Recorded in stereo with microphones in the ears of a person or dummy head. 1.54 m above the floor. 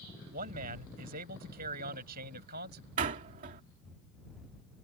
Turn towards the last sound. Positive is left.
turn(degrees=-40)  # may be behind; listen again after turning